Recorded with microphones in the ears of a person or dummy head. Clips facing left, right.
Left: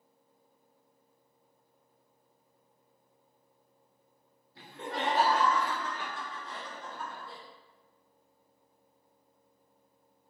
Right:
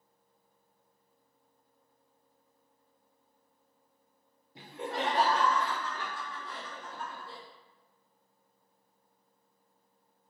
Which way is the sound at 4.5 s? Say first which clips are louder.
Right 1 dB; 20° right (ahead or behind).